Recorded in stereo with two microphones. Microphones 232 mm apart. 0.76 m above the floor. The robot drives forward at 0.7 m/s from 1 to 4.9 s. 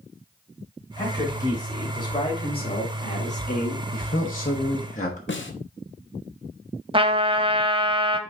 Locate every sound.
1.0 s a man speaking: 15° left (ahead or behind), 3 m; by 3.8 s 45° left (ahead or behind), 1.1 m
3.9 s a man speaking: 35° left (ahead or behind), 1.1 m
5.3 s a snare drum: 60° left (ahead or behind), 0.8 m
6.9 s a trumpet: 25° right (ahead or behind), 1.1 m